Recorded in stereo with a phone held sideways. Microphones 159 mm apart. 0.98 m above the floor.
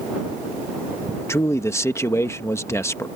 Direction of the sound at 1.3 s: 20° left (ahead or behind).